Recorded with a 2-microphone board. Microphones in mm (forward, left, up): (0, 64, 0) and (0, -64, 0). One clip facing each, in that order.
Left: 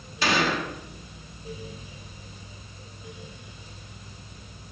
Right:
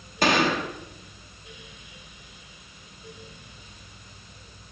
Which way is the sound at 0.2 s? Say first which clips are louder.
Right 3 dB; 45° right (ahead or behind).